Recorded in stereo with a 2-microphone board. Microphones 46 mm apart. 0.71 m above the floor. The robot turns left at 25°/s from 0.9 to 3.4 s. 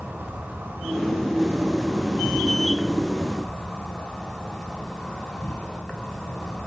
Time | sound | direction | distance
0.0 | an insect | 125° right | 1.6 m